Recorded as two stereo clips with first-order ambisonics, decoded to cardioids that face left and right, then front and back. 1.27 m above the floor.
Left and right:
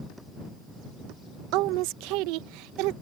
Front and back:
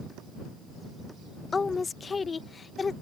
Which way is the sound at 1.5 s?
75° right.